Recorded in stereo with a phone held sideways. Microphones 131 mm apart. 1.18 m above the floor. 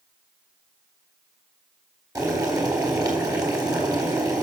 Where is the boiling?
30° right (ahead or behind), 4 m.